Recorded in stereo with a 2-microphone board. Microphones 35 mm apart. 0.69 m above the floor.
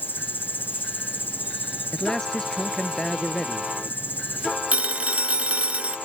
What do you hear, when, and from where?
0.0 s an insect: 70° left (ahead or behind)
1.9 s a man speaking: 15° left (ahead or behind)
4.7 s a phone ringing: 35° right (ahead or behind)